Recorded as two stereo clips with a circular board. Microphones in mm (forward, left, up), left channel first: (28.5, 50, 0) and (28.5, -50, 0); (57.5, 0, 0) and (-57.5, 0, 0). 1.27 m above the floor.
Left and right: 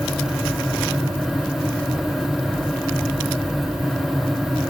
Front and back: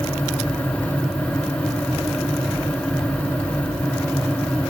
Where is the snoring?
No snoring in this recording.